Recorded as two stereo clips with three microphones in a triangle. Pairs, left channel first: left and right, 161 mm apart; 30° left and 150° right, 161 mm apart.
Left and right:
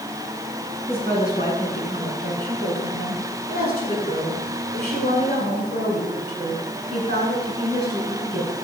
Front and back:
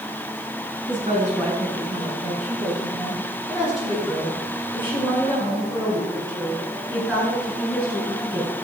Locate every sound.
0.9 s a woman speaking: 115° right, 7 m; by 8.5 s 75° right, 9.5 m